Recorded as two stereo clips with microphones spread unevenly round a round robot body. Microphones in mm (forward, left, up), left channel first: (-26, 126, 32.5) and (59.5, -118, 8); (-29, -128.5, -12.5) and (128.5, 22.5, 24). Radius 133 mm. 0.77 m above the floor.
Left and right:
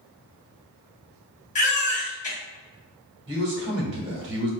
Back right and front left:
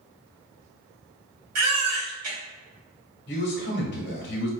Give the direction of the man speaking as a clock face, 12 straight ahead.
4 o'clock.